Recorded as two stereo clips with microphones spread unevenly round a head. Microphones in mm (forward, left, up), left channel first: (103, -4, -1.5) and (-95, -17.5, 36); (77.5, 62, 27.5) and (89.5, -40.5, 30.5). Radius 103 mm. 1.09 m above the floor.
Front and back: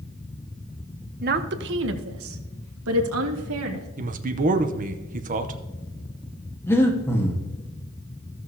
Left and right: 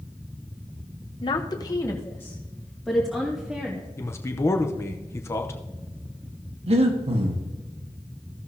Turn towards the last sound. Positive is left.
turn(degrees=-75)